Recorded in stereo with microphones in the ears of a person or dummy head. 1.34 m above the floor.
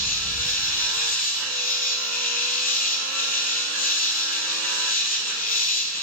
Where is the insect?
45° left (ahead or behind), 3 m.